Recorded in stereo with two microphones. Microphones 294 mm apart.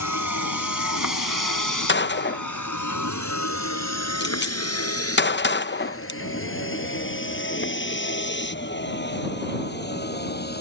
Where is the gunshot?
35° left (ahead or behind).